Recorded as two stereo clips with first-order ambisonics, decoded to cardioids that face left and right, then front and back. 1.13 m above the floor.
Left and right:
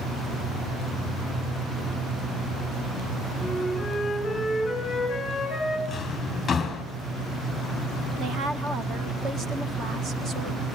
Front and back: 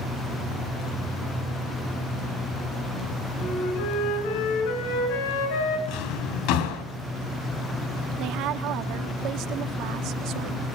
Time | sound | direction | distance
3.4 | a flute | 10° left | 7 m
5.9 | a drawer | 15° left | 3 m
8.2 | a woman speaking | 150° right | 1.4 m